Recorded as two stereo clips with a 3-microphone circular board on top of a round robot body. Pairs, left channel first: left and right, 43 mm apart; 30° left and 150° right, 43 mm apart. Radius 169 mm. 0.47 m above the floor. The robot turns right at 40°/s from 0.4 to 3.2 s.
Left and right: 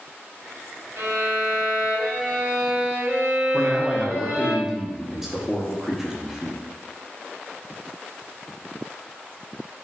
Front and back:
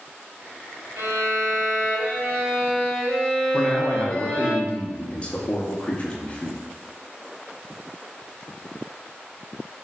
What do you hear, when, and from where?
1.0 s a violin: 130° right, 0.9 m; by 4.5 s 40° right, 0.9 m
3.5 s a man speaking: 10° right, 0.8 m